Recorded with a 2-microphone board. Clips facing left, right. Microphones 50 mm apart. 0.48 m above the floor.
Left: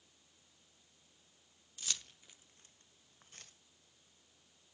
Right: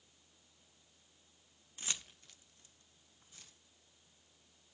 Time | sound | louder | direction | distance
1.8 | keys jangling | right 1 dB | 30° right (ahead or behind) | 0.7 m